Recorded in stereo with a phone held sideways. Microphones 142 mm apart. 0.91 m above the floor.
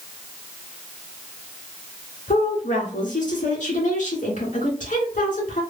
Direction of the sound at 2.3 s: 60° left (ahead or behind).